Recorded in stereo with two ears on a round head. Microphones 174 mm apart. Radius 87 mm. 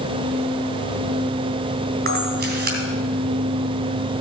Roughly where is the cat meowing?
I don't hear a cat meowing.